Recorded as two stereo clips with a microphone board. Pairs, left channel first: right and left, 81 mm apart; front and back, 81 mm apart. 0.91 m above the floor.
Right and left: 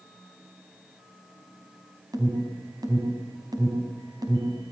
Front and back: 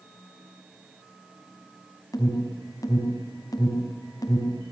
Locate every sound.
2.1 s an alarm: 50° left, 4.5 m